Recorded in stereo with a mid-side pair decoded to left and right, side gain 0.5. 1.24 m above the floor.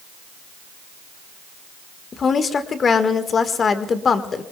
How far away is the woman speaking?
About 1.6 m.